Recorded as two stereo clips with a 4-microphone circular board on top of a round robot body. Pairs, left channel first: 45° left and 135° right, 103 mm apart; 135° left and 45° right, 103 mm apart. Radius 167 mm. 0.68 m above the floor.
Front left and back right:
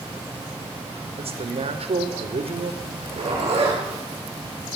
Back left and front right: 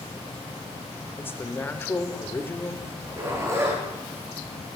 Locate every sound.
1.2 s a man speaking: 155° right, 2.5 m
2.8 s a zipper: 110° right, 8 m